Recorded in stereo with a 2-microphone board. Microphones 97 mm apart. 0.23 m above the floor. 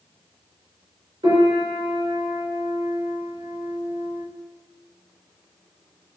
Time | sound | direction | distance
1.2 | a piano | 55° right (ahead or behind) | 1.9 m